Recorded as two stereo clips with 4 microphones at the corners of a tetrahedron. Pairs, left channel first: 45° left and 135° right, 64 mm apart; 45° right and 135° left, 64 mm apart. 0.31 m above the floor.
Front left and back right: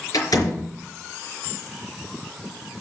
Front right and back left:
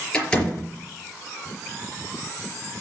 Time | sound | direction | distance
0.1 | a door slam | 30° left | 4 m